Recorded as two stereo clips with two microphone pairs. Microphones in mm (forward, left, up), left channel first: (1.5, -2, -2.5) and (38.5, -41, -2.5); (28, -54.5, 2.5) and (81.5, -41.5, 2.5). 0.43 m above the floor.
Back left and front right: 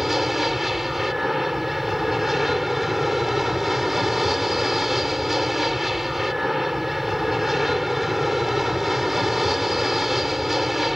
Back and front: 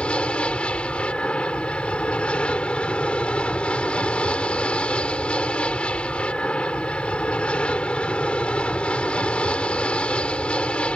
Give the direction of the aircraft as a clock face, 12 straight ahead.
4 o'clock.